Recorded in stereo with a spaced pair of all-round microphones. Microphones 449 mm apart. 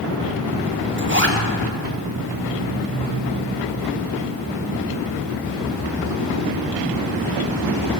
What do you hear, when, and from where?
1.0 s a zipper: 25° right (ahead or behind), 1.5 m